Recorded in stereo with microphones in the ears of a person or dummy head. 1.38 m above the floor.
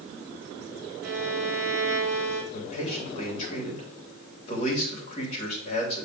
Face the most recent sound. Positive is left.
turn(degrees=40)  # may be behind; listen again after turning